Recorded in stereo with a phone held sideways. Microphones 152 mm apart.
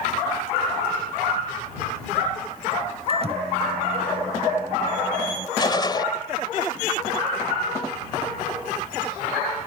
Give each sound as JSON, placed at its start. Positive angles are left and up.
{"t": 3.1, "sound": "a microwave", "side_deg": -45}
{"t": 5.6, "sound": "a gunshot", "side_deg": 30}